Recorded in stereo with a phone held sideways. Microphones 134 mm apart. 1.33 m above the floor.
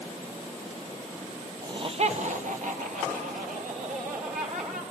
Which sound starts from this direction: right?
Laughter, at 1.6 s.